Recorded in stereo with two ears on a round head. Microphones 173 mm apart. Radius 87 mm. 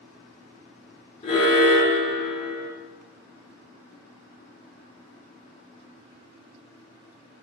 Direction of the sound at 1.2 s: 30° left (ahead or behind).